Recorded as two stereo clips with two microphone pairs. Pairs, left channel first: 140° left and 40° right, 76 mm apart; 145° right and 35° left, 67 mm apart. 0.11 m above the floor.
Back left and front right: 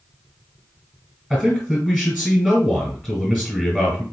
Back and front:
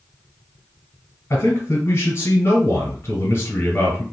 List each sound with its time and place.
1.3 s a man speaking: 135° right, 1.9 m